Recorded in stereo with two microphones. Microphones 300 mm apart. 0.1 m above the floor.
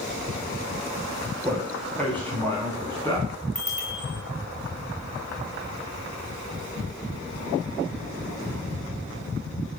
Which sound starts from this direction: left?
A bicycle bell, at 3.5 s.